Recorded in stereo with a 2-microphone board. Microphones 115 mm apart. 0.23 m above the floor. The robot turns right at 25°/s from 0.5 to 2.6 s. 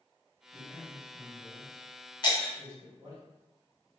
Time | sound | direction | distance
0.5 | a man speaking | 30° right (ahead or behind) | 1.9 m
2.2 | breaking glass | 40° left (ahead or behind) | 0.9 m